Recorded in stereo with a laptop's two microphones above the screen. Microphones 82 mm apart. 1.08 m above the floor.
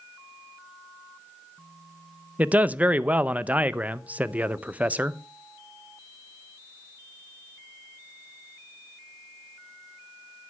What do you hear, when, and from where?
2.4 s a man speaking: 20° right (ahead or behind), 0.5 m